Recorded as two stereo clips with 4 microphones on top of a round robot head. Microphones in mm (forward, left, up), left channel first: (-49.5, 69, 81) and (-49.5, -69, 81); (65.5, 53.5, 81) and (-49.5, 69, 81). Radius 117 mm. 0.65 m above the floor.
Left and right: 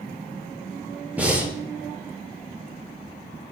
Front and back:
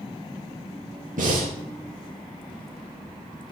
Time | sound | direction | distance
1.2 | breathing | 170° right | 5.5 m